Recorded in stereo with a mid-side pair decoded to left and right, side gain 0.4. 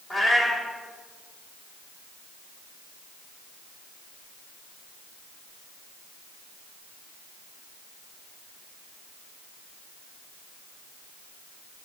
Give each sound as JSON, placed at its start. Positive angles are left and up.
{"t": 0.1, "sound": "a cat meowing", "azimuth_deg": 30, "distance_m": 2.0}